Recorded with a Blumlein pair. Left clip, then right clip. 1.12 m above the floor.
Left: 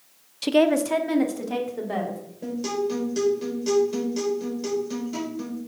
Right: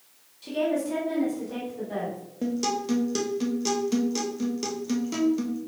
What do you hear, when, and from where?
0.4 s a woman speaking: 40° left, 0.6 m; by 2.2 s 25° left, 3 m
2.4 s a guitar: 45° right, 2 m